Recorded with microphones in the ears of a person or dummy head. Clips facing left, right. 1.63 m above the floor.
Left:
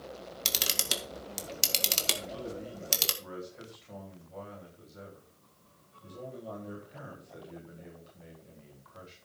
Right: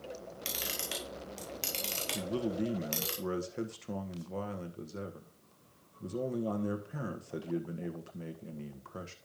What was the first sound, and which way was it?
A camera shutter, 60° left (ahead or behind).